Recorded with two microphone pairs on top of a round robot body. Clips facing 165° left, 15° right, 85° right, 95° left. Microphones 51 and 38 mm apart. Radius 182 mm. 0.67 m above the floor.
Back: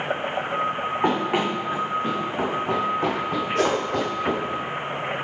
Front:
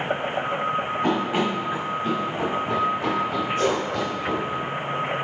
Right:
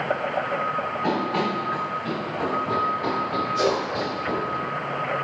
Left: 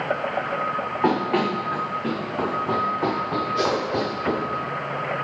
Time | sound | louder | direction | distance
1.0 | running footsteps | back 2 dB, left 4 dB | 115° left | 3.5 m
3.5 | a whoosh | back 1 dB, right 1 dB | 165° left | 2 m